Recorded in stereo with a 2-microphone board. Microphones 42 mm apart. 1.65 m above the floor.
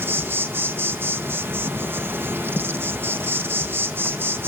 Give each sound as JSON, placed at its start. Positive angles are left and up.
{"t": 0.0, "sound": "an insect", "side_deg": -70, "distance_m": 1.7}